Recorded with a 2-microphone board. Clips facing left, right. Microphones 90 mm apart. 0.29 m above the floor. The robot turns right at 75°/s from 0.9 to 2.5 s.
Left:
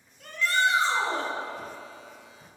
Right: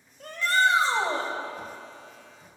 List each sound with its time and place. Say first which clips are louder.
0.2 s a shout: right 2 dB; 40° right (ahead or behind), 1.6 m